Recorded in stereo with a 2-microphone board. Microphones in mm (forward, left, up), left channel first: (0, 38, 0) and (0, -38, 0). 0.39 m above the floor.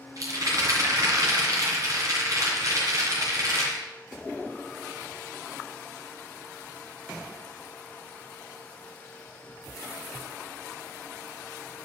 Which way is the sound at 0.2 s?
50° right (ahead or behind).